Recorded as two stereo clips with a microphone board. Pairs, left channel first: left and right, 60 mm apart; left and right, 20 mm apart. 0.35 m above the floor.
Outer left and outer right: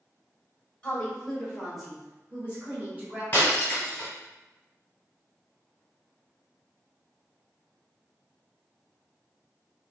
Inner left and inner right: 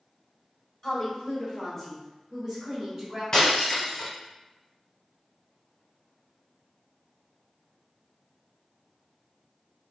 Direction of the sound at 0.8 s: 20° left (ahead or behind).